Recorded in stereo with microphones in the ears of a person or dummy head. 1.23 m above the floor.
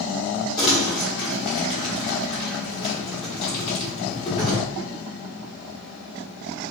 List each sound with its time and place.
0.6 s crumpling: 25° left (ahead or behind), 1.1 m